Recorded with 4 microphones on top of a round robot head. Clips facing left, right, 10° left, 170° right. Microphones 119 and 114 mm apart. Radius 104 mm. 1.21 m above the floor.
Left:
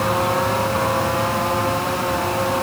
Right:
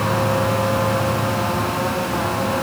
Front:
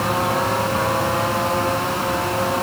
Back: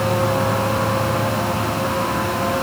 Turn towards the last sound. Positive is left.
No sound to turn to.